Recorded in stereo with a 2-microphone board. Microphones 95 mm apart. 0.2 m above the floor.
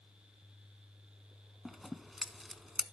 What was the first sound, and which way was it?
Scissors, centre (ahead or behind).